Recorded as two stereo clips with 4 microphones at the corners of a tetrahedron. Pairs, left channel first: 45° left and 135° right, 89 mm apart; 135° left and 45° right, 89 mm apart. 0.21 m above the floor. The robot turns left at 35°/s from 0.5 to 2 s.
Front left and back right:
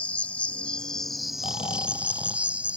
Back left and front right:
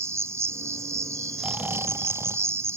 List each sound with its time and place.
0.0 s an insect: 20° right; by 2.8 s 70° right
1.4 s snoring: 35° left; by 2.8 s 15° left